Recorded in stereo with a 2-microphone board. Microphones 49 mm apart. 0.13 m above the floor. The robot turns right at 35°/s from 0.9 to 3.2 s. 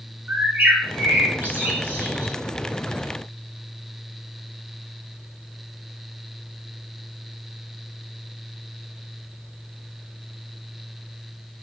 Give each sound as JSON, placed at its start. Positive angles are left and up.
{"t": 0.3, "sound": "a bird", "side_deg": -40, "distance_m": 0.7}